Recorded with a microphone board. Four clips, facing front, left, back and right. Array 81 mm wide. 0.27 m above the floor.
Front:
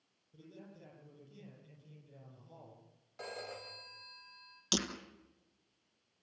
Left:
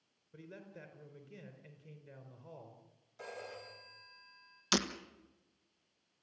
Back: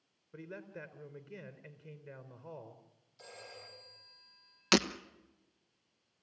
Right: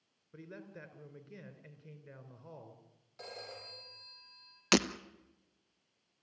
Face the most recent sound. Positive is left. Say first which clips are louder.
# right 5 dB, back 8 dB
turn(degrees=-125)